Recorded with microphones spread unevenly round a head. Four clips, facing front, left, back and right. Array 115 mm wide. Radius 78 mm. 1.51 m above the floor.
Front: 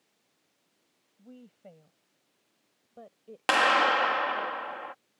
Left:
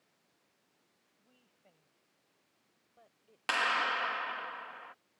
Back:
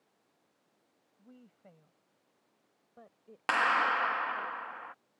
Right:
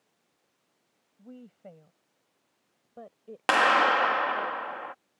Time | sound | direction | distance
1.2 | a woman speaking | 60° right | ?
3.5 | a clap | 50° right | ?